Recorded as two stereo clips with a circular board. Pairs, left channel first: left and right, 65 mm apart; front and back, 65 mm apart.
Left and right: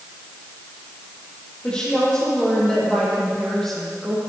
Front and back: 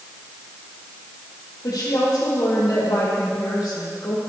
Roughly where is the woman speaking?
Ahead.